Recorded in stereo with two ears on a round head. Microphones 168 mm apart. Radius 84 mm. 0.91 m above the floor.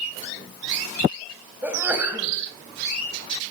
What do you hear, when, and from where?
1.6 s a sneeze: 10° right (ahead or behind), 5 m